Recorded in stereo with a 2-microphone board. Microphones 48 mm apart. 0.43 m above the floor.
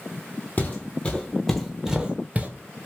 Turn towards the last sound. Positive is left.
turn(degrees=-35)  # may be behind; listen again after turning